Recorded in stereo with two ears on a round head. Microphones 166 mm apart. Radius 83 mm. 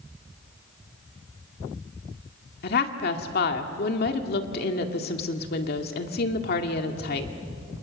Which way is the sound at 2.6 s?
55° left (ahead or behind).